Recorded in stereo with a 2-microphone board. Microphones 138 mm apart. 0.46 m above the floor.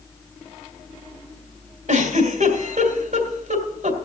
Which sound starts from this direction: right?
A giggle, at 1.9 s.